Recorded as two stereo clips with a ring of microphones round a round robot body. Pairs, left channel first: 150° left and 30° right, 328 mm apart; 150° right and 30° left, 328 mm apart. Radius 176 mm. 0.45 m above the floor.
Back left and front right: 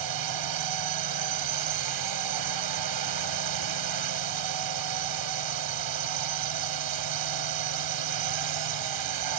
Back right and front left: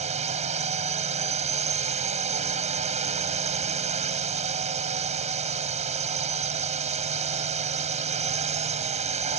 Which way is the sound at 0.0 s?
40° right.